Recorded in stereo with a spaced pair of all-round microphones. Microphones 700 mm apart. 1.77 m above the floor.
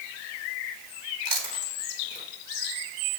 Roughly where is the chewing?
Right.